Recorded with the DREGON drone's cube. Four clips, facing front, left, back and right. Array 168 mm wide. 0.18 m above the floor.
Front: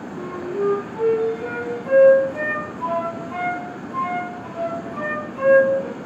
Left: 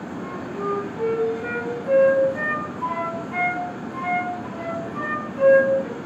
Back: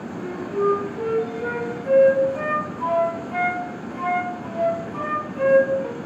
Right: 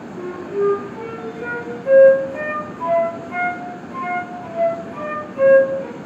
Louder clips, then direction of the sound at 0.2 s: Right 10 dB, even; 100° right.